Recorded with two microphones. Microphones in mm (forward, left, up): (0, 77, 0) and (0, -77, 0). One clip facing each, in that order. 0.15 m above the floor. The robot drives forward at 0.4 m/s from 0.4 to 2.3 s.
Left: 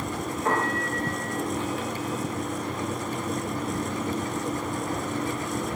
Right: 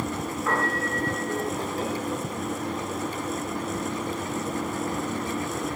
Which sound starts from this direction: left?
A piano, at 0.5 s.